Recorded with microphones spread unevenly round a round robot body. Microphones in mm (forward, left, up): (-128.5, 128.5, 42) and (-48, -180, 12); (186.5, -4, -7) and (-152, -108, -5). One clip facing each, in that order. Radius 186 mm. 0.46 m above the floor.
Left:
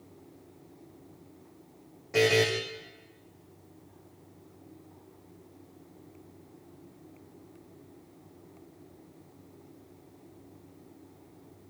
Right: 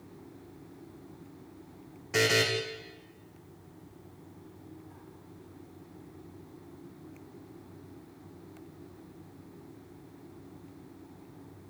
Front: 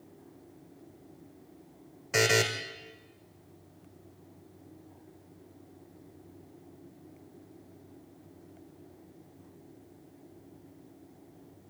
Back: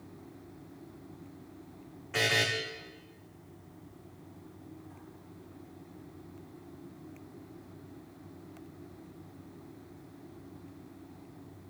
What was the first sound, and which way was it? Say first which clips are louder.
A buzzer: left 4 dB, front 6 dB; 5° right.